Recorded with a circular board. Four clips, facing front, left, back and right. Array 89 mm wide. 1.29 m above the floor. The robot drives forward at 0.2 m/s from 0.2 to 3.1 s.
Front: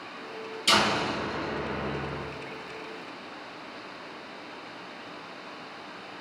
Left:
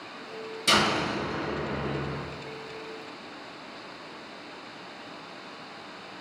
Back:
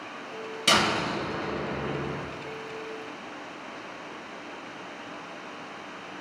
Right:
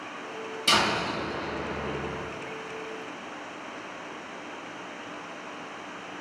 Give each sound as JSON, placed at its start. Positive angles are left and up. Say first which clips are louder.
{"t": 0.7, "sound": "a door slam", "louder": "left 1 dB, even", "azimuth_deg": -170, "distance_m": 1.2}